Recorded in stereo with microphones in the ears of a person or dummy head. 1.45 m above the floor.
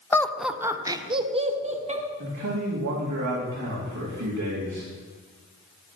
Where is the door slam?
No door slam in this recording.